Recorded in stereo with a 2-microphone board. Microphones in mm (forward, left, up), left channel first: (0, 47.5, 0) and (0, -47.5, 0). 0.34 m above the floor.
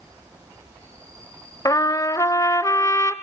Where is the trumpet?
40° left (ahead or behind), 0.9 m.